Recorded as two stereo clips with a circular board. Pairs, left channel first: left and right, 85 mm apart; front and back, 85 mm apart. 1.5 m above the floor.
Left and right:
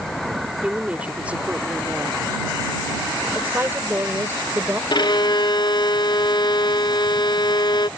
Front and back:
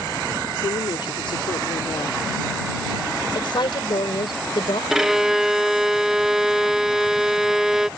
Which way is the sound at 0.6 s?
15° right.